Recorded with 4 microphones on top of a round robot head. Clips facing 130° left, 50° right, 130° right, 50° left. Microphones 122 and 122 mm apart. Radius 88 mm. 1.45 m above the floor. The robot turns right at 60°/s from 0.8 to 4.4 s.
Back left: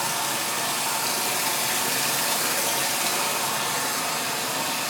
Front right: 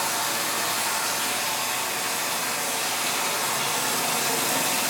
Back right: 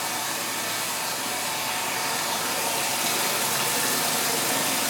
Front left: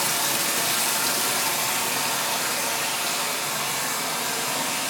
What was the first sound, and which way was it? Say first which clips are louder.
Running water: even, front left 3 dB; 50° left.